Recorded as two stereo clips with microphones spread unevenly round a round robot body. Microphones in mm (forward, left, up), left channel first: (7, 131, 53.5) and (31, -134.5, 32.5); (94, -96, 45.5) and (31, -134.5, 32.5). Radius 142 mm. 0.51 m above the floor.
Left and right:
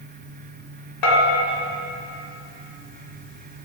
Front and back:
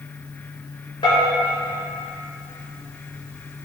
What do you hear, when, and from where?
1.0 s a bell: 70° left, 1.8 m